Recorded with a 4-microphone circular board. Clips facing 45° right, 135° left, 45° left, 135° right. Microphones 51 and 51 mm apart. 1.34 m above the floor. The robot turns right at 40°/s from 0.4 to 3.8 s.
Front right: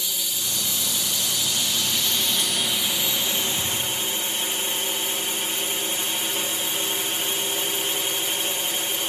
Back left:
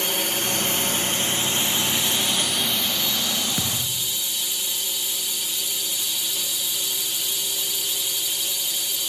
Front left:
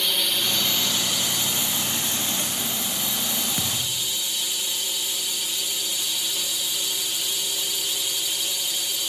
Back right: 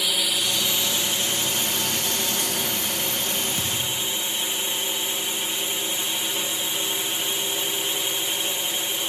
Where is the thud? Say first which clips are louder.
Front right 1 dB, back right 1 dB; 115° left; by 4.2 s 125° left.